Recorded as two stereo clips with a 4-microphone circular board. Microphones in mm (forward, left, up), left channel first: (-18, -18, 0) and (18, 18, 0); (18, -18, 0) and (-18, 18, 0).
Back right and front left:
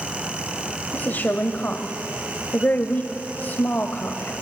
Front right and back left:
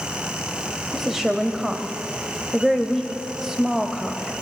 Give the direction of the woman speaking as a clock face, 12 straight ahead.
5 o'clock.